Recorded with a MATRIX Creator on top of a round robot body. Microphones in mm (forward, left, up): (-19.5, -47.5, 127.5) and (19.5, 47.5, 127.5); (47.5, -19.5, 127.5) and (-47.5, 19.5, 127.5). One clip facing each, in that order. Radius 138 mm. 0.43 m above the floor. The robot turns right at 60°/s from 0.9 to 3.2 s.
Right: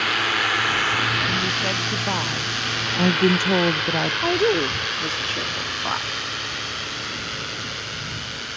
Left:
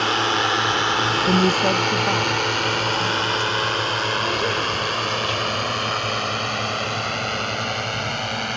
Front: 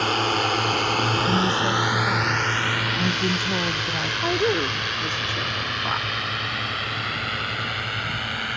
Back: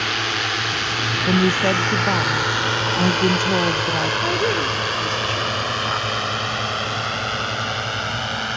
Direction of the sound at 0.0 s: 15° left.